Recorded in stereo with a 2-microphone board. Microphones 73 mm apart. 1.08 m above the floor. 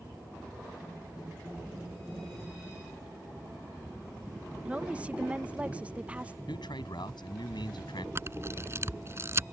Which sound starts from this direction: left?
A man speaking, at 6.5 s.